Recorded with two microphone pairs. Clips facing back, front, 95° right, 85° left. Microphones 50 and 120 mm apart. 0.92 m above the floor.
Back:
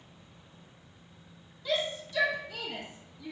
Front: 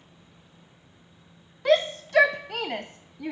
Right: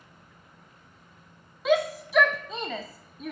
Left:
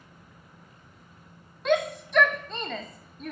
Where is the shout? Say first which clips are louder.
Front 10 dB, right 1 dB; 10° right, 0.5 m.